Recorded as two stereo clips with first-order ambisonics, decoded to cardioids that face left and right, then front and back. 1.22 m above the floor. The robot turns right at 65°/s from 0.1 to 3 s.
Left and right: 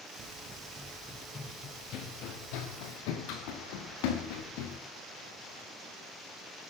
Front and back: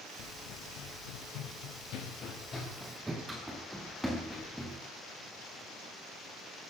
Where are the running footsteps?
40° right, 4.5 m; by 4.8 s 85° left, 8 m.